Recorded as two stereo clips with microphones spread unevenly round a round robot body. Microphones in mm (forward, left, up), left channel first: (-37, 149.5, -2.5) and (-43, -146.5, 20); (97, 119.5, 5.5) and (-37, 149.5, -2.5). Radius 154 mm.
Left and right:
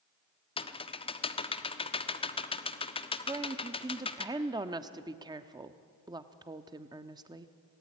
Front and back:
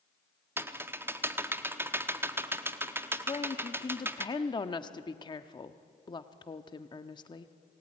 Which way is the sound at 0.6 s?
125° left.